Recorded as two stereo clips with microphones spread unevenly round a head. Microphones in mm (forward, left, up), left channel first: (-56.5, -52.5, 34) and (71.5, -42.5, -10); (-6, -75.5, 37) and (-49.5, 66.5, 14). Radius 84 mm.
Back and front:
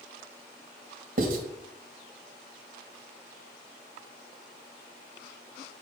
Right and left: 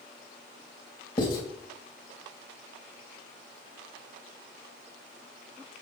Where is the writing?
10° right, 2.5 m.